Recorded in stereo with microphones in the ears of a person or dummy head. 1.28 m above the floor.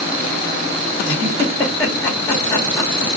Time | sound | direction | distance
1.1 | a giggle | 25° left (ahead or behind) | 1.6 m